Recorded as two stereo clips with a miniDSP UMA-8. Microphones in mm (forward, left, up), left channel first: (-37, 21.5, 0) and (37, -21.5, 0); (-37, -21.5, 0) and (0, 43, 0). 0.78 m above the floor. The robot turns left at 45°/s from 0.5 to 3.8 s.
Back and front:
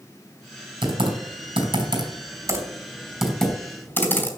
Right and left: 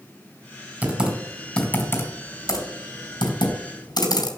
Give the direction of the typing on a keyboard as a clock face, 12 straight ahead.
12 o'clock.